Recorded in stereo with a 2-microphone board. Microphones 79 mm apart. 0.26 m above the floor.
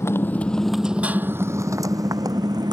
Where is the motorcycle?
35° left (ahead or behind); by 2.7 s 55° right (ahead or behind).